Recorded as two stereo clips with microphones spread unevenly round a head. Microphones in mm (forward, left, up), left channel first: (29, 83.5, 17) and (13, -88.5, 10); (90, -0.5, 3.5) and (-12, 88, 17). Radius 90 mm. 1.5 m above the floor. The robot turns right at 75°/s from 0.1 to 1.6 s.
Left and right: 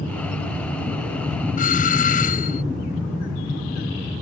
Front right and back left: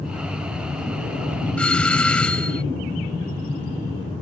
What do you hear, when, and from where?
1.6 s a doorbell: 40° left